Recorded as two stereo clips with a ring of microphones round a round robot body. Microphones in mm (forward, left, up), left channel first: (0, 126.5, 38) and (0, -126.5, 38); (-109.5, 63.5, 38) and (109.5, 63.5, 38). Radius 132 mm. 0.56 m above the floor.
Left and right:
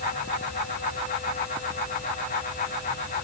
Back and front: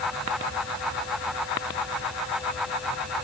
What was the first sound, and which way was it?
Only background noise.